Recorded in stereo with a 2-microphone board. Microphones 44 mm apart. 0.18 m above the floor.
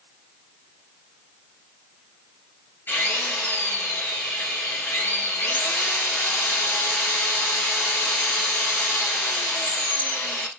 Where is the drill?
50° left (ahead or behind), 2.5 m.